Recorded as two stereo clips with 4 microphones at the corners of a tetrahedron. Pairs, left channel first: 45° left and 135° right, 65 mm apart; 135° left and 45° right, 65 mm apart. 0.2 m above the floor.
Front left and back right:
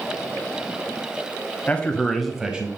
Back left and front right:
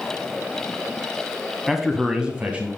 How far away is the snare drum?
I don't hear a snare drum.